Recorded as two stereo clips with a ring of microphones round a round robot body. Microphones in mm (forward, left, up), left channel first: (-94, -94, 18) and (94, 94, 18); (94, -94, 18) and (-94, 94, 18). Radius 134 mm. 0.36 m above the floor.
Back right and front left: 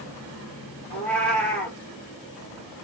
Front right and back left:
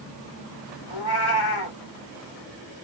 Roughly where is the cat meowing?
Ahead right.